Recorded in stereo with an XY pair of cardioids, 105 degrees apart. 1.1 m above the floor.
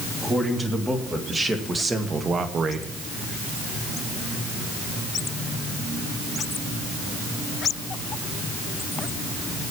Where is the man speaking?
10° right, 3.5 m; by 2.9 s 70° right, 1.2 m.